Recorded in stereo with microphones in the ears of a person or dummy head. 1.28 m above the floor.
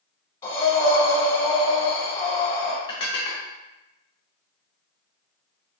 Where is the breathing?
20° left (ahead or behind), 1.1 m.